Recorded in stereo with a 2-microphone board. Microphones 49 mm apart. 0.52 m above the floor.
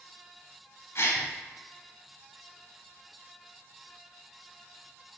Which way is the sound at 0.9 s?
65° left (ahead or behind).